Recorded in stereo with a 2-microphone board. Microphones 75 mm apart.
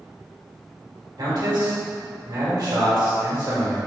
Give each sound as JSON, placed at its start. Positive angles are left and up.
{"t": 1.2, "sound": "a man speaking", "side_deg": -70, "distance_m": 1.6}